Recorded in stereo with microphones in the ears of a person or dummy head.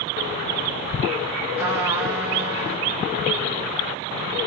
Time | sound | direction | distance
1.6 | a trumpet | 25° right (ahead or behind) | 2.5 m